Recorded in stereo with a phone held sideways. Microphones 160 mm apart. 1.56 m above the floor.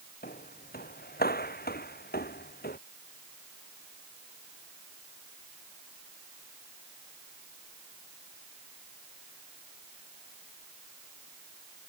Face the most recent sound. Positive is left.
turn(degrees=75)  # may be behind; listen again after turning